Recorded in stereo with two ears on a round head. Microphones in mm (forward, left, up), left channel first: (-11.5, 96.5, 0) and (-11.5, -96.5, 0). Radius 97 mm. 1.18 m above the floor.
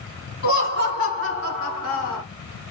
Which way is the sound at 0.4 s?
60° left (ahead or behind).